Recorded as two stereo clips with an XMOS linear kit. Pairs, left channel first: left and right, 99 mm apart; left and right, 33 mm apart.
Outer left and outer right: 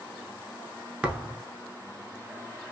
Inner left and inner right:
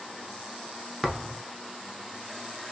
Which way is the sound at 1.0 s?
10° right (ahead or behind).